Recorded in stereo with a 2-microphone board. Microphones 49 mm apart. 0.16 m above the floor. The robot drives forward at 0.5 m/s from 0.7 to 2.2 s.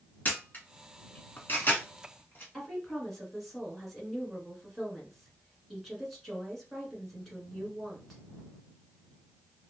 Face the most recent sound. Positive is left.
turn(degrees=0)  # may be behind; listen again after turning